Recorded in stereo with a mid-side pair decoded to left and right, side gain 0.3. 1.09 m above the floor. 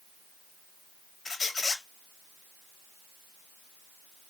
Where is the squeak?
60° left, 0.8 m.